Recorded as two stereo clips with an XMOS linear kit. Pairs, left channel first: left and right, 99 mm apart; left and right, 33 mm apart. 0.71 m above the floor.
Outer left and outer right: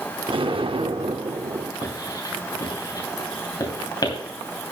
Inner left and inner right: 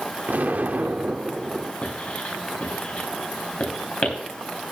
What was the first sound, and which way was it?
An explosion, 65° right (ahead or behind).